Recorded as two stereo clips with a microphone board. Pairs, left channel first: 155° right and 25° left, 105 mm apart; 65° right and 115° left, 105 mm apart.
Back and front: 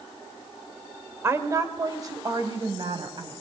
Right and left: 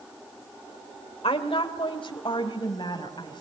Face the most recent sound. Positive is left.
turn(degrees=-25)